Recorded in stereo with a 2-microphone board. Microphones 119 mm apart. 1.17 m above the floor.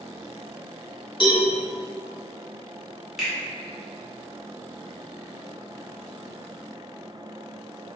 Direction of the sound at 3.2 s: Centre (ahead or behind).